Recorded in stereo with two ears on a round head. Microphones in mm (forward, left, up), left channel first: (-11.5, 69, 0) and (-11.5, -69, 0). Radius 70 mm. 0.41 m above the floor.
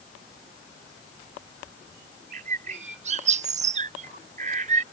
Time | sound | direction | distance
2.3 | a bird | 45° right (ahead or behind) | ?